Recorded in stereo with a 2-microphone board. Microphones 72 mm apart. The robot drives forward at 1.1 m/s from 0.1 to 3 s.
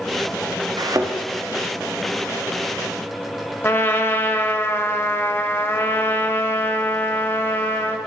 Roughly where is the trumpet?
Left.